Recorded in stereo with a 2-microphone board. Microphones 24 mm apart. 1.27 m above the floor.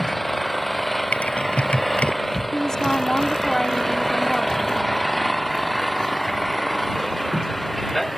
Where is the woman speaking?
25° left (ahead or behind).